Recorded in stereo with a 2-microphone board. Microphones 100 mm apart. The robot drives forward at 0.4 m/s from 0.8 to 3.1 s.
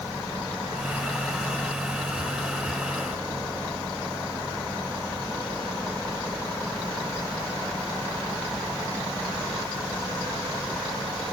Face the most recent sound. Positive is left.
No sound to turn to.